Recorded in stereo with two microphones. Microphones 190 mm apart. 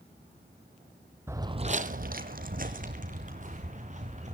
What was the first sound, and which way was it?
Footsteps, 15° right (ahead or behind).